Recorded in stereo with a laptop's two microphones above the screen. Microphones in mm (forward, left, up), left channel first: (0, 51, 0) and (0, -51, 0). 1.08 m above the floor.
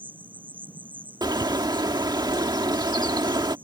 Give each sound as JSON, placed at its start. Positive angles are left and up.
{"t": 0.0, "sound": "an insect", "side_deg": -15}
{"t": 1.2, "sound": "a bird", "side_deg": -45}